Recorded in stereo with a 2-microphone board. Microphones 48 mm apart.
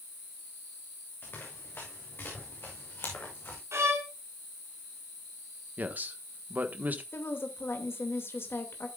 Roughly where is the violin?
Right.